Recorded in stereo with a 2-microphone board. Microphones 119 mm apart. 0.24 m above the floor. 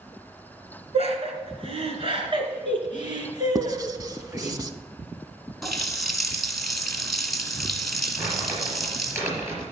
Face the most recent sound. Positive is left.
turn(degrees=-20)  # may be behind; listen again after turning